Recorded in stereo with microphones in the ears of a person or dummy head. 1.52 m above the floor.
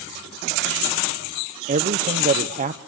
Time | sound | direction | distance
1.7 | a man speaking | 35° right (ahead or behind) | 0.7 m